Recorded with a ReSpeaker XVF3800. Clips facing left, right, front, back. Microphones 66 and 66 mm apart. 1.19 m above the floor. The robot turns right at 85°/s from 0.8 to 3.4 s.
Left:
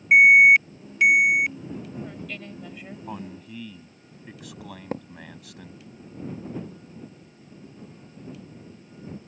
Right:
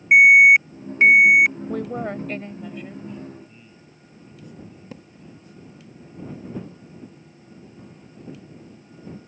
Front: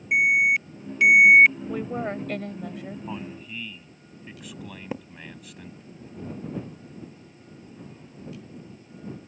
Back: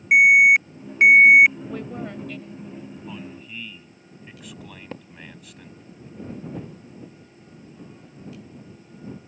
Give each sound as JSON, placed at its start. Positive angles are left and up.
{"t": 0.1, "sound": "an alarm", "azimuth_deg": -155}
{"t": 1.7, "sound": "a woman speaking", "azimuth_deg": -90}
{"t": 3.1, "sound": "a man speaking", "azimuth_deg": 60}
{"t": 4.9, "sound": "a thud", "azimuth_deg": 75}